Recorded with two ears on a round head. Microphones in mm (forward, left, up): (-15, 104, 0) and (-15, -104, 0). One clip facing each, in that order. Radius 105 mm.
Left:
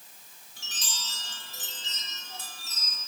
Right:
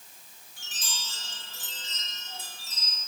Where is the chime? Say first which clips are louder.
Even; 55° left (ahead or behind), 3.5 m.